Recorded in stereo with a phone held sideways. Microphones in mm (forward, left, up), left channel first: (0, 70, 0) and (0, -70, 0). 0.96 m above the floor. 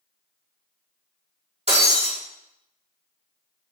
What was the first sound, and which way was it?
Breaking glass, 50° right (ahead or behind).